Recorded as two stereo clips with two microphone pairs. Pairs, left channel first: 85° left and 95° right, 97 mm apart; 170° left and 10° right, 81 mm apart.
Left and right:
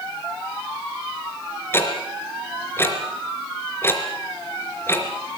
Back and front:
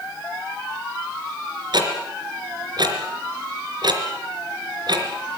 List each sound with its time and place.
1.7 s ticking: 20° left, 3 m